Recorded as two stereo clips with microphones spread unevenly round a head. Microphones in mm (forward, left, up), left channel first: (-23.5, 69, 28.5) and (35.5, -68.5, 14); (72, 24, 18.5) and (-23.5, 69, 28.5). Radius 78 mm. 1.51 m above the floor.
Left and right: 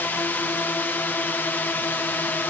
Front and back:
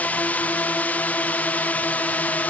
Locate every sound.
0.0 s a drone: 35° left